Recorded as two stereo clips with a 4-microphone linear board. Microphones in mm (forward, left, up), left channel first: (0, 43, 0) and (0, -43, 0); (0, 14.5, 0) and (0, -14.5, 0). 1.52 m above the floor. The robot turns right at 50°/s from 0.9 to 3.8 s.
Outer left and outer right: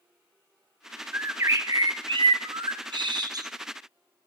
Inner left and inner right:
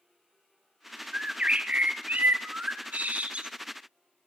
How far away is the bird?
About 0.7 m.